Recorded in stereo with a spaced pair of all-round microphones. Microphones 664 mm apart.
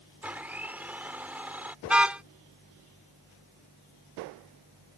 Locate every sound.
0.2 s a blender: centre (ahead or behind)
1.9 s a car horn: centre (ahead or behind)